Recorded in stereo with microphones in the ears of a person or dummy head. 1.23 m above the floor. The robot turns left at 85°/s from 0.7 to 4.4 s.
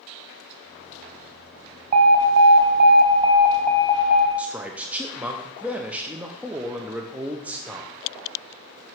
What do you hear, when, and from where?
1.9 s an alarm: 45° right, 0.8 m; by 4.3 s 115° left, 0.8 m
4.4 s a man speaking: 5° right (ahead or behind), 0.5 m; by 7.9 s 10° right (ahead or behind), 0.5 m